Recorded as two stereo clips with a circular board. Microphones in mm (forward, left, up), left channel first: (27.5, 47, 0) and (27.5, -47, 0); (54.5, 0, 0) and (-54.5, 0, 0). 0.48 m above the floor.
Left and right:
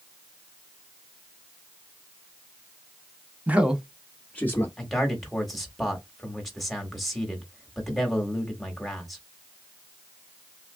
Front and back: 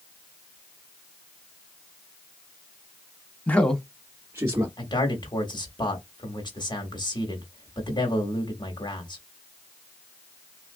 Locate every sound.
3.5 s a man speaking: 50° right, 0.7 m; by 4.7 s 145° left, 0.8 m
4.8 s a man speaking: straight ahead, 1.3 m